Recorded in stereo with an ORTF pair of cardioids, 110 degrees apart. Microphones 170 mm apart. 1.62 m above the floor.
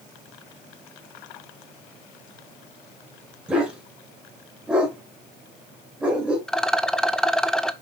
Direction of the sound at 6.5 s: 5° left.